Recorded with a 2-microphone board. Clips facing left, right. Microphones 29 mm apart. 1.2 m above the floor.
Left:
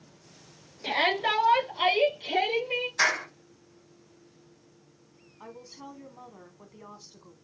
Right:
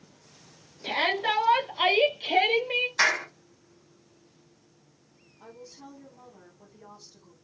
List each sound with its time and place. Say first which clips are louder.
0.8 s a shout: even; 10° left (ahead or behind), 1.1 m; by 2.9 s 45° right (ahead or behind), 0.9 m
3.0 s a clap: right 1 dB; 30° right (ahead or behind), 1.5 m
5.4 s a woman speaking: left 2 dB; 40° left (ahead or behind), 1.1 m